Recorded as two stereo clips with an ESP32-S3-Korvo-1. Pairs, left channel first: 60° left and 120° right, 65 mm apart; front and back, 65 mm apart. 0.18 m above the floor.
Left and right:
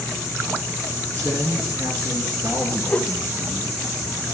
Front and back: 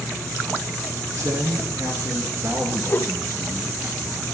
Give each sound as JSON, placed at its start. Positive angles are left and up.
{"t": 1.1, "sound": "a man speaking", "azimuth_deg": -155, "distance_m": 2.5}
{"t": 2.9, "sound": "a whoosh", "azimuth_deg": 10, "distance_m": 0.7}